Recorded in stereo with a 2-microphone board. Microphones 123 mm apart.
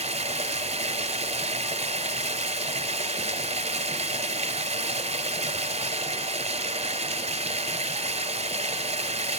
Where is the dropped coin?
I don't hear a dropped coin.